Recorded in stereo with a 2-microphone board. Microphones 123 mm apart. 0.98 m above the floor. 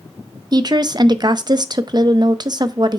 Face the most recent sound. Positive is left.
turn(degrees=-35)  # may be behind; listen again after turning